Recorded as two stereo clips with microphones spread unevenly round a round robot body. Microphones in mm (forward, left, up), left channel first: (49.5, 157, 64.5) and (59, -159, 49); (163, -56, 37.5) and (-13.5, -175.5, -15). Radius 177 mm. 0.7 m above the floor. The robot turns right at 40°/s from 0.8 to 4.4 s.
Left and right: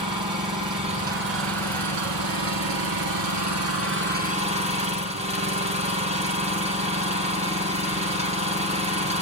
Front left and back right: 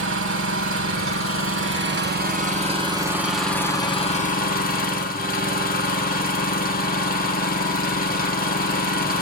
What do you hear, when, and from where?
0.0 s an engine running: 165° right, 1.7 m; by 9.2 s 20° right, 1.7 m